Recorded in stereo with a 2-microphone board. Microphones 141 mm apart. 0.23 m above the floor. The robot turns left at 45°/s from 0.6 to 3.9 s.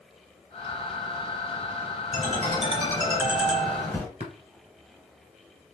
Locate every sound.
2.1 s a ringtone: 115° right, 3 m; by 4.1 s 170° left, 3 m
4.2 s tapping: 55° right (ahead or behind), 1.7 m